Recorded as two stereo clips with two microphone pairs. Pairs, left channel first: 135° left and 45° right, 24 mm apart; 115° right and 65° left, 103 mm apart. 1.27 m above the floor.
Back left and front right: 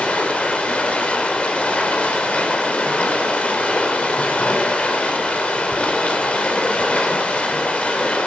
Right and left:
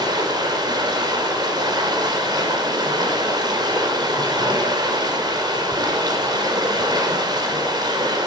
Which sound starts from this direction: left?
Running water, at 0.0 s.